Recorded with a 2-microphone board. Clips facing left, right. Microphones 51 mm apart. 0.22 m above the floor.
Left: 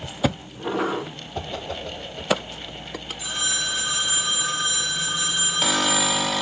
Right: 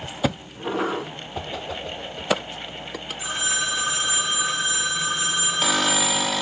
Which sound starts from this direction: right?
A phone ringing, at 3.2 s.